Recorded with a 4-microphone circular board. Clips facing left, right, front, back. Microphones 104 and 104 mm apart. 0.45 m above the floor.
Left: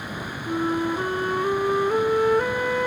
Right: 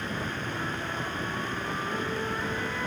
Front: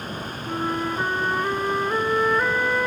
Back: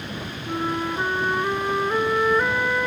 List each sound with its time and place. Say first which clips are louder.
0.5 s a flute: left 10 dB, even; 90° left, 1.1 m